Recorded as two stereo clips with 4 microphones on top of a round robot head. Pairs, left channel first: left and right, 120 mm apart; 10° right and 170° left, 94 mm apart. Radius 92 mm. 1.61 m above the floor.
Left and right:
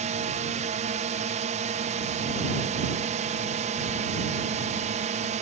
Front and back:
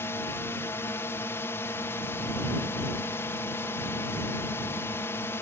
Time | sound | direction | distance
0.0 | a drone | 80° right | ?